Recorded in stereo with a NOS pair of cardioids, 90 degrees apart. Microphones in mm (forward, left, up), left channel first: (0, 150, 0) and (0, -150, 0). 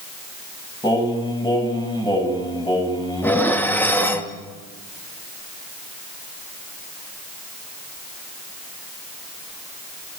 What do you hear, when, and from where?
0.8 s singing: 15° left, 7 m
3.2 s dishes clattering: 5° left, 1.9 m